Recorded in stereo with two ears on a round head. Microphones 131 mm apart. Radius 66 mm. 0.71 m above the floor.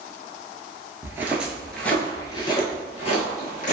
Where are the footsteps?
20° right (ahead or behind), 0.8 m; by 3.7 s 60° left (ahead or behind), 1.2 m.